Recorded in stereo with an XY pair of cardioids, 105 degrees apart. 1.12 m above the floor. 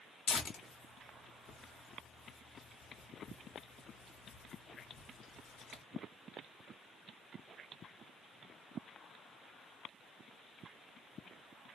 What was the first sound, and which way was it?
Tearing paper, 60° left.